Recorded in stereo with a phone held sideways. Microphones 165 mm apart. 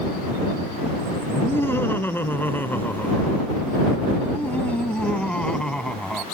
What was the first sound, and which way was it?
Laughter, 15° left (ahead or behind).